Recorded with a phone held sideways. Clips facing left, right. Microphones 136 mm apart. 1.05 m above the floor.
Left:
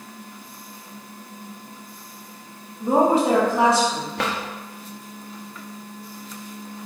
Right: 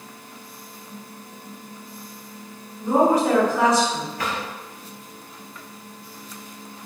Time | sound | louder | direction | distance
2.8 | a woman speaking | even | 30° left (ahead or behind) | 1.6 m
4.2 | a drawer | left 5 dB | 75° left (ahead or behind) | 0.8 m